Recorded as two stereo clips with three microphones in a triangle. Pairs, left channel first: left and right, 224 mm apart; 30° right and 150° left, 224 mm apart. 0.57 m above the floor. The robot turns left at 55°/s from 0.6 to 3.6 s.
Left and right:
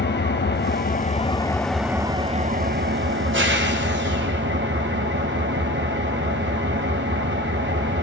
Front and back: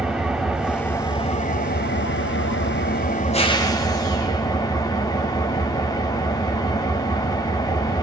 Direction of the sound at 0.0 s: 65° left.